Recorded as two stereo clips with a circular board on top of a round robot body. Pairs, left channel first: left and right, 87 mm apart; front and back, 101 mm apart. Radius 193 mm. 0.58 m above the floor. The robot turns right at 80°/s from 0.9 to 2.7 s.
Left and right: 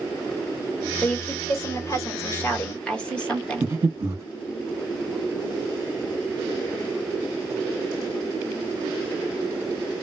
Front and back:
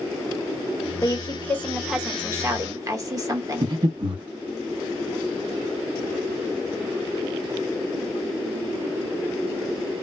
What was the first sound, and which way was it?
A woman speaking, 25° left.